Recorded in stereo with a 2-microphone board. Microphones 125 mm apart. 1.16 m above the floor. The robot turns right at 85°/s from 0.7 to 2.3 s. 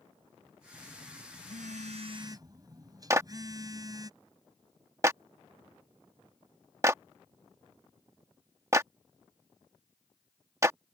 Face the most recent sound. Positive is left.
turn(degrees=-25)  # may be behind; listen again after turning